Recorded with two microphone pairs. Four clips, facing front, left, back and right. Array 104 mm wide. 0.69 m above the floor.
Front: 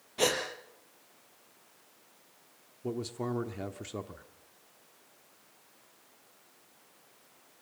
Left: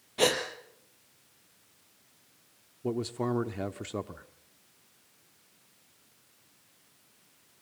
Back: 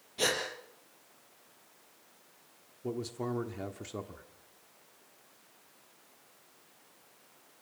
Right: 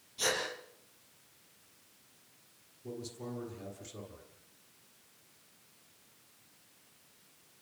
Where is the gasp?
70° left, 4 m.